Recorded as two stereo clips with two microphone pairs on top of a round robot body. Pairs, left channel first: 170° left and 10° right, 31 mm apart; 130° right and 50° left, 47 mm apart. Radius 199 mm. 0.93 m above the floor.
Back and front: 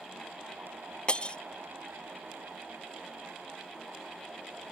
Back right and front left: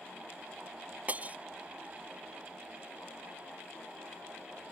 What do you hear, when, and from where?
1.1 s breaking glass: 110° left